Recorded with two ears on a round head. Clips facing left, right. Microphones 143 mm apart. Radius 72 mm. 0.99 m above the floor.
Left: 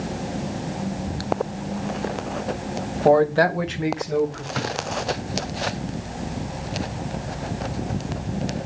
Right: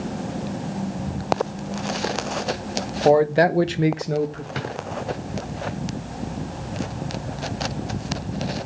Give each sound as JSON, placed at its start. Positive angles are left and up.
{"t": 3.0, "sound": "a man speaking", "side_deg": -5, "distance_m": 1.1}
{"t": 4.5, "sound": "a drawer", "side_deg": -25, "distance_m": 4.5}